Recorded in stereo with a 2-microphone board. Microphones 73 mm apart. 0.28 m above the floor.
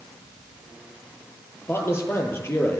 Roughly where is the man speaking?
Left.